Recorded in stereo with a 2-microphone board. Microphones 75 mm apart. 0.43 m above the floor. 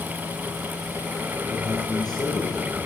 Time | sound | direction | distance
1.5 | a man speaking | 65° left (ahead or behind) | 7 m